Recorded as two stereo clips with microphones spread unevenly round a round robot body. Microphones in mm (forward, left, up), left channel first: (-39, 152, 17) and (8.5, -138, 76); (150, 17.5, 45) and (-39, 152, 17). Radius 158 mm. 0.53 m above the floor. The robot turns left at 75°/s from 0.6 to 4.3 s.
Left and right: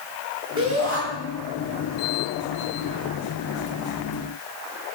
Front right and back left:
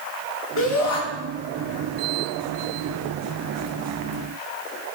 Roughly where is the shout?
Ahead.